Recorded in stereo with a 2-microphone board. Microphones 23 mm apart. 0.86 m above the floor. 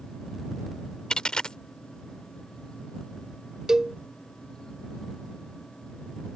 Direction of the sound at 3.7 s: 30° right (ahead or behind).